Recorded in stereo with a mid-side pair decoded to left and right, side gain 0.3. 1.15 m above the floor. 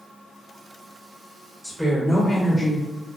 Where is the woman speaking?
5° right, 1.3 m; by 2.9 s 60° left, 0.5 m.